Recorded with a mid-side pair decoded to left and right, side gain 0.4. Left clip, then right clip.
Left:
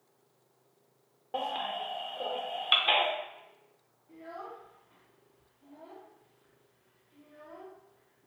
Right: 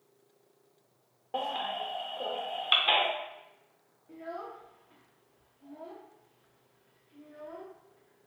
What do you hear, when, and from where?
1.3 s a baby crying: 5° left, 0.6 m
4.1 s a child speaking: 50° right, 0.5 m